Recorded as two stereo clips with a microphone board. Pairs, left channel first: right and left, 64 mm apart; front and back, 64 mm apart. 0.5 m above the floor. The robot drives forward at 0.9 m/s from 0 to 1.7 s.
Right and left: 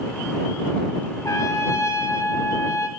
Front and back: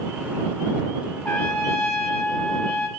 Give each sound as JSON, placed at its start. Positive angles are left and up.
{"t": 1.2, "sound": "a trumpet", "azimuth_deg": -70, "distance_m": 2.0}